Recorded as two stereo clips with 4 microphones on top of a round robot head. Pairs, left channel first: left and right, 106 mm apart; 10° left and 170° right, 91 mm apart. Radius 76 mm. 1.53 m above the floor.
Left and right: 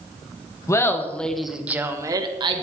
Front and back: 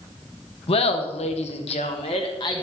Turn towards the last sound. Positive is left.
turn(degrees=-50)